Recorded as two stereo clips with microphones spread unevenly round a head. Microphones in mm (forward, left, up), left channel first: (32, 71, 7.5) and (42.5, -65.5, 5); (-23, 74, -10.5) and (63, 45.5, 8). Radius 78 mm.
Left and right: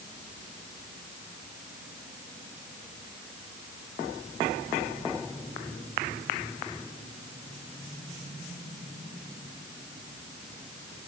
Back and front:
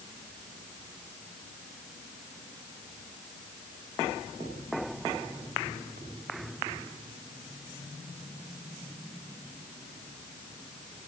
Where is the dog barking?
No dog barking in this recording.